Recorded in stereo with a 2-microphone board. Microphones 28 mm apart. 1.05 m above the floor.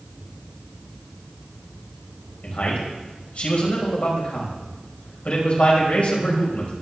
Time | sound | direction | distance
2.4 | a man speaking | 60° left (ahead or behind) | 5.5 m